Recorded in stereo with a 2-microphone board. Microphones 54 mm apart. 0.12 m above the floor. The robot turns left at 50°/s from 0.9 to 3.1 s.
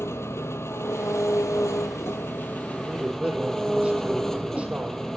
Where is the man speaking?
5° right (ahead or behind), 4.5 m; by 5.0 s 25° right (ahead or behind), 4.5 m.